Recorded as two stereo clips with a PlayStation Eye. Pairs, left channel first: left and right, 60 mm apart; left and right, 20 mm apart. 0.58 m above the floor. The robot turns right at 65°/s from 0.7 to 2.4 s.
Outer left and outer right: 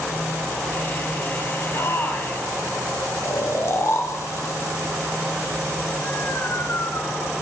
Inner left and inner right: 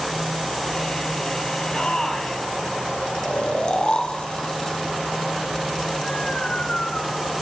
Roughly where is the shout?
Behind left.